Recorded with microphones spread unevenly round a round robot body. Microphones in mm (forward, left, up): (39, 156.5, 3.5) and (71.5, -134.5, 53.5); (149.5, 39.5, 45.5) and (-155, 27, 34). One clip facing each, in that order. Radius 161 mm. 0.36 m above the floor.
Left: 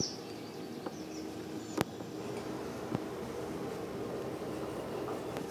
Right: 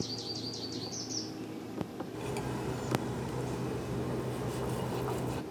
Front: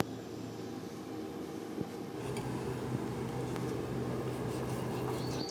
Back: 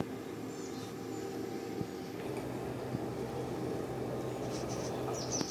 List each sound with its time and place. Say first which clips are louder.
2.1 s cutlery clinking: right 2 dB, front 1 dB; 55° right, 0.8 m